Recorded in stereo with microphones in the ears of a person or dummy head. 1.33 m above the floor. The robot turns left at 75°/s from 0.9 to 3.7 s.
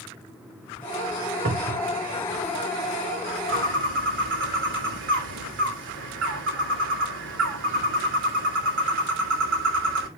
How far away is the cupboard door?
About 1.2 m.